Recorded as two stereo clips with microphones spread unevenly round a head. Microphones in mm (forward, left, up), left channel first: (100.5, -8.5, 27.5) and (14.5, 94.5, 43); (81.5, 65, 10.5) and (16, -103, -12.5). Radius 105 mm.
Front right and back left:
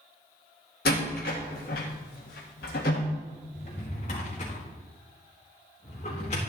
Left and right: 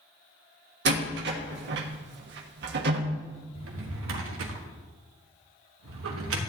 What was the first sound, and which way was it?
A door slam, 90° right.